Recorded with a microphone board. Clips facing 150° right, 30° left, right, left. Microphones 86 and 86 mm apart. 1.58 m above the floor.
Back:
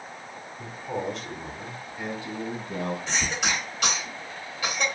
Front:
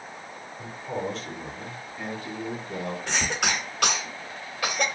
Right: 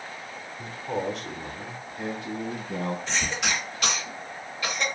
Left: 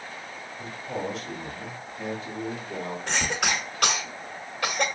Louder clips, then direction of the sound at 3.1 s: Front 1 dB, left 2 dB; 60° left.